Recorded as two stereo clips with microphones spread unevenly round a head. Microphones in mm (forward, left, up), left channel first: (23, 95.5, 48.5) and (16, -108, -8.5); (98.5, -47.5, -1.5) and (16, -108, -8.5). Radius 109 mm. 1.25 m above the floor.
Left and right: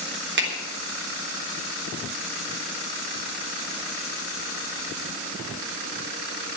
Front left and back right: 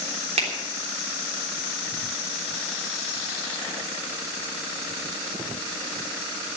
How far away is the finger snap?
About 3 m.